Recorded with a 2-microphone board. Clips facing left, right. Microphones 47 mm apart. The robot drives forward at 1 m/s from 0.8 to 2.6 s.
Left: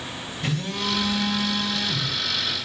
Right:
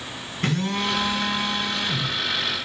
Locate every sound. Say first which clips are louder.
0.4 s a phone buzzing: right 4 dB; 55° right (ahead or behind), 1.3 m; by 2.2 s 40° right (ahead or behind), 1.7 m